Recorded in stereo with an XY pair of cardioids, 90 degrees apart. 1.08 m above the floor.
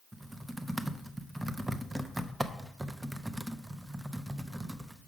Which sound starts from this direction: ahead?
Typing on a keyboard, at 0.1 s.